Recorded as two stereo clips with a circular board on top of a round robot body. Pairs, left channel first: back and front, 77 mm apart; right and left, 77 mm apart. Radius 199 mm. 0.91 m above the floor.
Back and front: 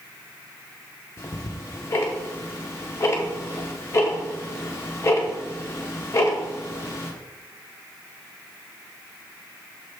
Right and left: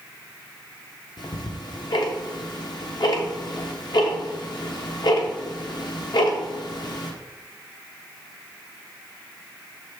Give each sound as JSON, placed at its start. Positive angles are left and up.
{"t": 1.2, "sound": "ticking", "azimuth_deg": -120, "distance_m": 0.7}